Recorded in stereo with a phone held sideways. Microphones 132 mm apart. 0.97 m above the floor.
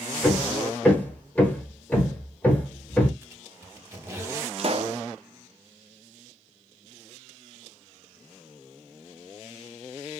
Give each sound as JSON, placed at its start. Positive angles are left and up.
{"t": 0.2, "sound": "hammering", "side_deg": 10, "distance_m": 1.1}
{"t": 3.2, "sound": "a squeak", "side_deg": -20, "distance_m": 1.3}
{"t": 4.6, "sound": "a pop", "side_deg": -50, "distance_m": 0.5}